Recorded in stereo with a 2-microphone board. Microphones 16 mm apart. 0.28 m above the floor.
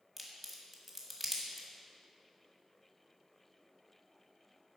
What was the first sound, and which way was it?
A crack, 5° right (ahead or behind).